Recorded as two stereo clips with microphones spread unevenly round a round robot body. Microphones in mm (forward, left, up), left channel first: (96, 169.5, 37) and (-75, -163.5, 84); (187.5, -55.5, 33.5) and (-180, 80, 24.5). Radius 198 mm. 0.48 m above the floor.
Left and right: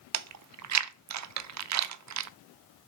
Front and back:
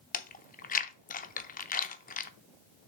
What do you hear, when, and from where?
0.1 s chewing: 80° right, 0.7 m